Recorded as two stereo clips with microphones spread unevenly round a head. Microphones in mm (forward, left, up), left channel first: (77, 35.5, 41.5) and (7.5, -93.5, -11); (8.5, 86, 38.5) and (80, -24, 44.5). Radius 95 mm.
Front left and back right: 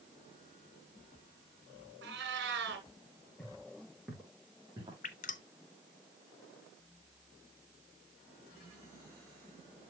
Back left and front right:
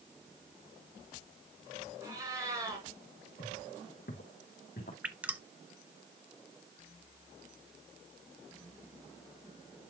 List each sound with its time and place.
2.0 s a cat meowing: 130° right, 2.5 m
3.4 s footsteps: 140° left, 4 m; by 4.9 s 170° left, 4.5 m
5.0 s dripping: 25° left, 1.1 m